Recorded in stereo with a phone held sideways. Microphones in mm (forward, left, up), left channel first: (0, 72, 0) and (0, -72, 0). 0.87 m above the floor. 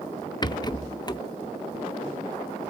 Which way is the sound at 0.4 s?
30° left (ahead or behind).